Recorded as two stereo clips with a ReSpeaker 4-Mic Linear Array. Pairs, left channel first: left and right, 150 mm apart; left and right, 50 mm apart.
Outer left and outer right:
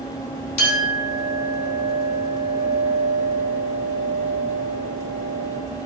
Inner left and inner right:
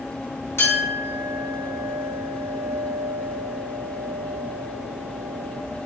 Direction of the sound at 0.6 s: 55° left (ahead or behind).